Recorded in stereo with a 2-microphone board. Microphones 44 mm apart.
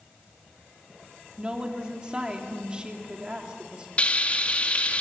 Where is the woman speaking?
20° right (ahead or behind), 3 m.